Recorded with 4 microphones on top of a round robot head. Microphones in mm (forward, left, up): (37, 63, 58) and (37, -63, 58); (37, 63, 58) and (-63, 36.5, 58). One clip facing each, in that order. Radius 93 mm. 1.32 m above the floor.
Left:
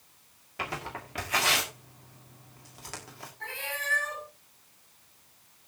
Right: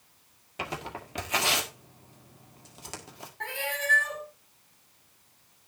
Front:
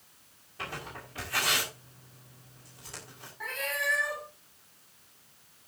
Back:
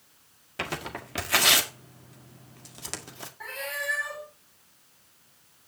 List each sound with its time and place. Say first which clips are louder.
0.6 s tearing paper: even, back 6 dB; 160° right, 1.6 m
3.4 s a cat meowing: right 5 dB, front 1 dB; 75° right, 4.5 m